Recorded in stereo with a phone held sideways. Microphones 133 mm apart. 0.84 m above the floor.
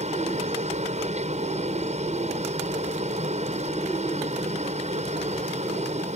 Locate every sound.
0.0 s a helicopter: 60° right (ahead or behind)